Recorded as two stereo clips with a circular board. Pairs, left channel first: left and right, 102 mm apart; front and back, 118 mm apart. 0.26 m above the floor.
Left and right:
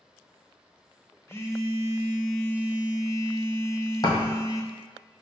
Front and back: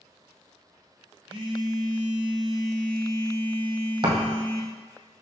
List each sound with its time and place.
1.3 s a phone buzzing: 145° left, 0.7 m
4.0 s a thud: 140° left, 1.3 m